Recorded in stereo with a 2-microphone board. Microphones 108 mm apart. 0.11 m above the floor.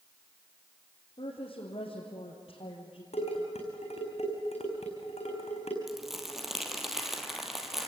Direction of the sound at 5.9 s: 5° right (ahead or behind).